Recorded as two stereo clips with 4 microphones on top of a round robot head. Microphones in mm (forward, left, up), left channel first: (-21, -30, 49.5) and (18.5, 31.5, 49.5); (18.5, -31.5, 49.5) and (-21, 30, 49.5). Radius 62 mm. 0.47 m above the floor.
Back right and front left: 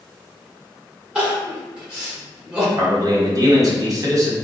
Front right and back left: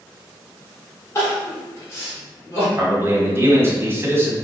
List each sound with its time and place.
1.1 s crying: 15° right, 1.8 m
2.8 s a man speaking: 70° left, 1.3 m